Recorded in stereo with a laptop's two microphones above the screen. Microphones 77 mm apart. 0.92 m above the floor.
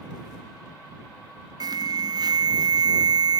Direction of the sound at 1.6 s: 55° right (ahead or behind).